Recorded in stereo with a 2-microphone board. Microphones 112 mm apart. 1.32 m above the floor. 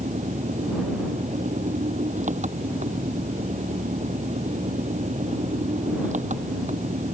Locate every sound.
0.0 s an engine running: 90° right